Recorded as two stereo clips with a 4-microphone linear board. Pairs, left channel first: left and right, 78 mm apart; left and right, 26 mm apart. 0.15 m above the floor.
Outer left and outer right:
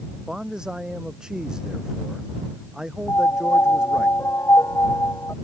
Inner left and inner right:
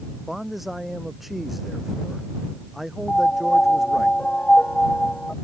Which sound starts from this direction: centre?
A man speaking, at 0.3 s.